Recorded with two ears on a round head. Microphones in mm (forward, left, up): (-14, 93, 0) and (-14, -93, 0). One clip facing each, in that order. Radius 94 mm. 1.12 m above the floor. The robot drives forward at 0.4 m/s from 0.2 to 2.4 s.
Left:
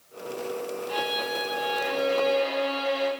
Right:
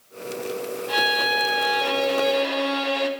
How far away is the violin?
About 3 m.